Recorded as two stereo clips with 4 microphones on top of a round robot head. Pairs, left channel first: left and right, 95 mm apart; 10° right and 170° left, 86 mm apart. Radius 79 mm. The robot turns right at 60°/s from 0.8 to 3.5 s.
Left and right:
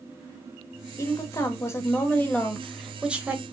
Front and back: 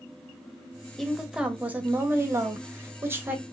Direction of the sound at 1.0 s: 75° left.